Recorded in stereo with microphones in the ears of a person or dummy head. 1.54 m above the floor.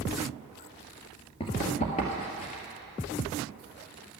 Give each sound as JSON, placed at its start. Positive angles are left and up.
{"t": 1.4, "sound": "running footsteps", "side_deg": 30, "distance_m": 1.7}